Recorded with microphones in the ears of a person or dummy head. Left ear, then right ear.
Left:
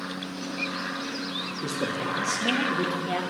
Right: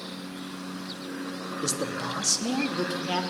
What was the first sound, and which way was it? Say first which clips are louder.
A man speaking: even; 40° right (ahead or behind).